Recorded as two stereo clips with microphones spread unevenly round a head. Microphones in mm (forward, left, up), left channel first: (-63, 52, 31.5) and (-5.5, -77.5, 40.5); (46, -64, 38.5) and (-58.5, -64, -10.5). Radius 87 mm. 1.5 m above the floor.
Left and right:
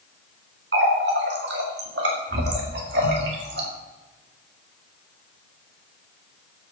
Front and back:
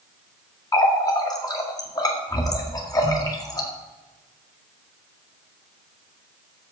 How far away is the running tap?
About 2.0 m.